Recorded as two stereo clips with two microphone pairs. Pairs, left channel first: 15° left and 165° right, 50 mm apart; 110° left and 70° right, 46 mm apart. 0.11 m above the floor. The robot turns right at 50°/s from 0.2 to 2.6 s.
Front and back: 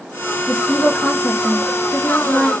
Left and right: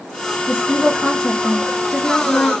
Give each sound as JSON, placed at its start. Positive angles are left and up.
{"t": 0.5, "sound": "a woman speaking", "azimuth_deg": -25, "distance_m": 1.4}